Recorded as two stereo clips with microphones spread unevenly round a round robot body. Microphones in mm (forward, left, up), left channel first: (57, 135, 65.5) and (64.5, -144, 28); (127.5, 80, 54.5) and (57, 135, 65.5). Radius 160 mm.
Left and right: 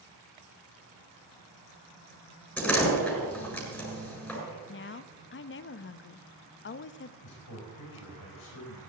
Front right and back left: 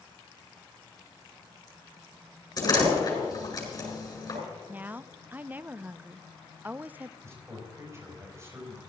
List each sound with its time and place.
2.6 s a door slam: 5° left, 7.5 m
4.7 s a woman speaking: 70° left, 0.5 m
7.2 s a man speaking: 85° left, 4.5 m